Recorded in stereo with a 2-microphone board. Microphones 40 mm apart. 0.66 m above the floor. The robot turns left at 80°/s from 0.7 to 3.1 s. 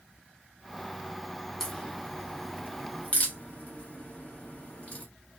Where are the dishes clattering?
I don't hear dishes clattering.